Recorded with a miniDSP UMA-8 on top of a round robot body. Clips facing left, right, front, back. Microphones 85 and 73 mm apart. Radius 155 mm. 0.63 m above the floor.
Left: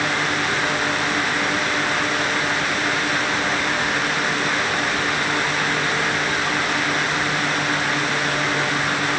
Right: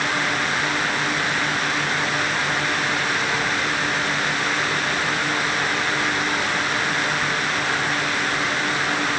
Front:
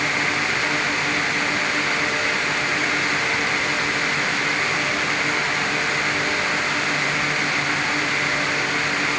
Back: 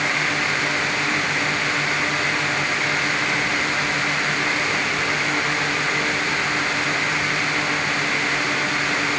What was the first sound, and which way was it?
Only background noise.